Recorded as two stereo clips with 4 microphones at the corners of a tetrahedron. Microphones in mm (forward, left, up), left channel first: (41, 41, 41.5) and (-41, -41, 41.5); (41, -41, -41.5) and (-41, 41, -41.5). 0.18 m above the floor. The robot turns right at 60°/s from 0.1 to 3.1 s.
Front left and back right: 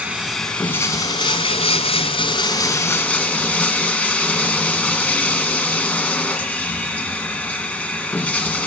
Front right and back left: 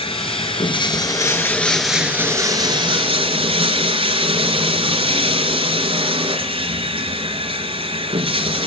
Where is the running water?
60° right, 2 m; by 8.7 s 120° left, 2 m.